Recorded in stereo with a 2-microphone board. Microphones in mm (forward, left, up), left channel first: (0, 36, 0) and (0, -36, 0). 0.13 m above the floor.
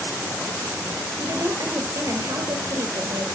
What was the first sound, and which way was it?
A woman speaking, 60° right (ahead or behind).